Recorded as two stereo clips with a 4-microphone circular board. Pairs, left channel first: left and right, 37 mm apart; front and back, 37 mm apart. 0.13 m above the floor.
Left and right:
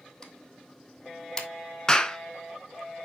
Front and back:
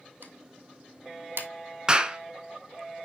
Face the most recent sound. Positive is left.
turn(degrees=145)